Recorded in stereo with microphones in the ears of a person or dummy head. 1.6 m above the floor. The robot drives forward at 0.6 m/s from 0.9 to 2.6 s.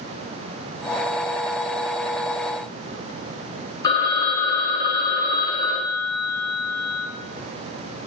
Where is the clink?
No clink in this recording.